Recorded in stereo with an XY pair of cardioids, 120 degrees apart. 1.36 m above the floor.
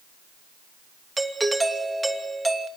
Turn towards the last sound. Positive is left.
turn(degrees=-10)